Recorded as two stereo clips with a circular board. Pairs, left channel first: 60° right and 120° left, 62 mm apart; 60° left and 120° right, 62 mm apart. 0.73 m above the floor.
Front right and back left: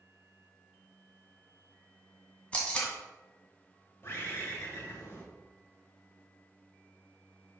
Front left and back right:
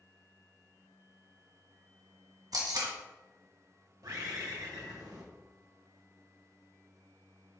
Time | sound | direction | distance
2.5 | tape being pulled | 130° right | 1.7 m
4.0 | a bird | 110° right | 2.0 m